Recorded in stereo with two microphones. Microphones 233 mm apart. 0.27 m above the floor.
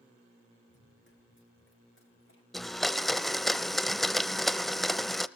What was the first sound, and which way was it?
Running footsteps, 50° left (ahead or behind).